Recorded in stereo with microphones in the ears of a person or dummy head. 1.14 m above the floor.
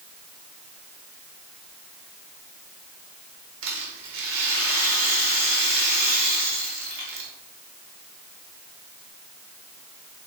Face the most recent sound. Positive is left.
turn(degrees=-60)  # may be behind; listen again after turning